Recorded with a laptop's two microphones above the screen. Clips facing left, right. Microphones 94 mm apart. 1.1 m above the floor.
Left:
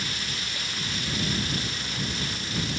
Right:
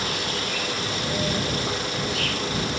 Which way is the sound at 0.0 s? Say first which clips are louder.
Right 8 dB; 80° right.